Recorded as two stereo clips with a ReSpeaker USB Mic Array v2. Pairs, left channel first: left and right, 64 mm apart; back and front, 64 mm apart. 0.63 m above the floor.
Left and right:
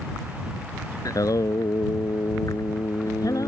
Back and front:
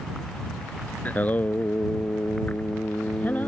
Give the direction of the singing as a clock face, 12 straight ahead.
8 o'clock.